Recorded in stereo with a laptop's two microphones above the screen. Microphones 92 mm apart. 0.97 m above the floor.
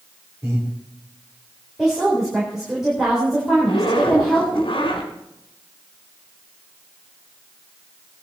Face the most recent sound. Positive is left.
turn(degrees=80)